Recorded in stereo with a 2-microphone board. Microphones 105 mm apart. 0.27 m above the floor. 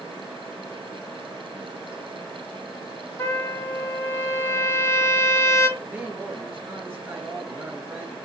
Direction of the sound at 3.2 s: 25° left (ahead or behind).